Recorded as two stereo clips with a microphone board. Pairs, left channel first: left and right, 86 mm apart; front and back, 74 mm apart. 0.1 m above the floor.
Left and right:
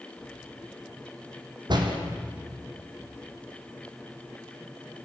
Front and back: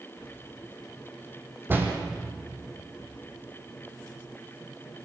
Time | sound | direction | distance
1.7 | a door slam | 120° right | 4 m